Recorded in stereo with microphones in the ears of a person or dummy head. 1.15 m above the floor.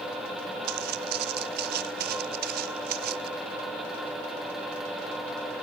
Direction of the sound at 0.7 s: 65° right (ahead or behind).